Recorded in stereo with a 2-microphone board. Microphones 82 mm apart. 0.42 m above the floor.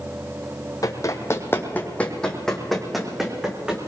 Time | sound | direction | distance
0.8 | running footsteps | 45° left (ahead or behind) | 1.4 m